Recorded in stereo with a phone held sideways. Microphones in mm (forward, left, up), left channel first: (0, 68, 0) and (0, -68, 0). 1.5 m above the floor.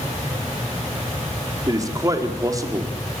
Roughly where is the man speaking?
Right.